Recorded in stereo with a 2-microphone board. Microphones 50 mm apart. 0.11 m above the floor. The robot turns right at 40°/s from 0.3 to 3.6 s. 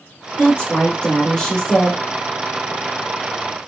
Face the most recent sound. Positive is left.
turn(degrees=-125)